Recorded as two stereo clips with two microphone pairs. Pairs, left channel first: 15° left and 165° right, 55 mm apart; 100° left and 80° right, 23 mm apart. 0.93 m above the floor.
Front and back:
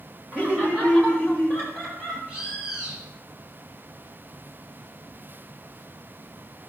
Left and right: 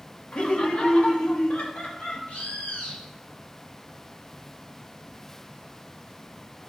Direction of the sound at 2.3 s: 125° left.